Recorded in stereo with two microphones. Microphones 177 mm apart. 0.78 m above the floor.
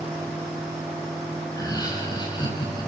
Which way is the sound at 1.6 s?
20° left (ahead or behind).